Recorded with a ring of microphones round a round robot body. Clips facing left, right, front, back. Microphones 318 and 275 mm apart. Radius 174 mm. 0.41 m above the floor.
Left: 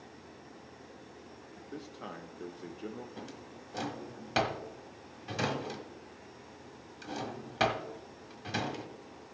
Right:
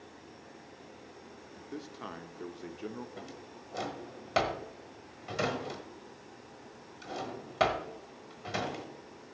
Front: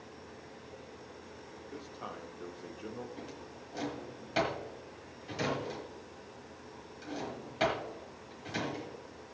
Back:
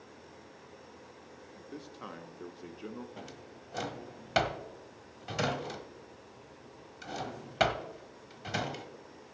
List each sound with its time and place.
1.6 s a man speaking: 150° right, 0.9 m
3.2 s a drawer: 175° left, 1.2 m